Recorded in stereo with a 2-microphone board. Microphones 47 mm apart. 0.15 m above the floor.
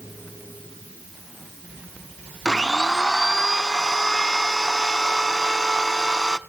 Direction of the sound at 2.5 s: 10° left (ahead or behind).